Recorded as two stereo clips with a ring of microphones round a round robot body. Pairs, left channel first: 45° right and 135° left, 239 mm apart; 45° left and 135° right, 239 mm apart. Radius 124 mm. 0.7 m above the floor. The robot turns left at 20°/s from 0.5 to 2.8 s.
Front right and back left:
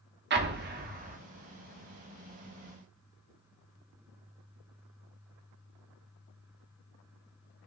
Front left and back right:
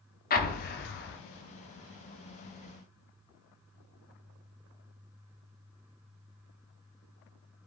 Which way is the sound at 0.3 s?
95° left.